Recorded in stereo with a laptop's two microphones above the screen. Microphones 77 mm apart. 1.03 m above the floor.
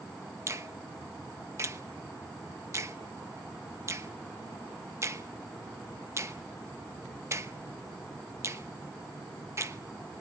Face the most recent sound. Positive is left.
turn(degrees=-35)  # may be behind; listen again after turning